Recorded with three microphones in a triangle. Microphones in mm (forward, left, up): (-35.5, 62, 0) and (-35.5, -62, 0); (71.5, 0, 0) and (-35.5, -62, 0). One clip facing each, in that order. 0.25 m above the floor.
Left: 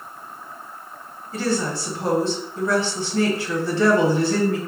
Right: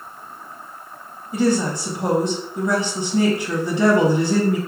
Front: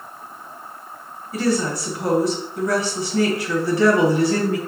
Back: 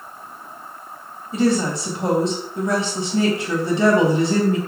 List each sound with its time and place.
1.3 s a woman speaking: 140° right, 1.1 m